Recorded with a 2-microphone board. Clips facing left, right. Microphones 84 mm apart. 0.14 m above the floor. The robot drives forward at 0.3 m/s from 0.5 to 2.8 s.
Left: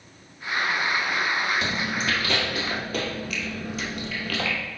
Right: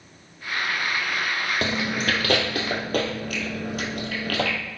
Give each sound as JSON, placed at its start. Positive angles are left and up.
{"t": 1.6, "sound": "chewing", "side_deg": -60, "distance_m": 1.6}